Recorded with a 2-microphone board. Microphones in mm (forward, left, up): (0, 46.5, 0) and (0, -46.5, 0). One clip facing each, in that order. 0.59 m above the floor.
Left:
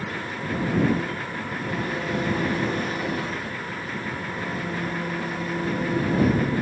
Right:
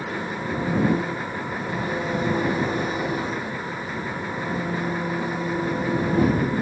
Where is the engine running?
15° right (ahead or behind).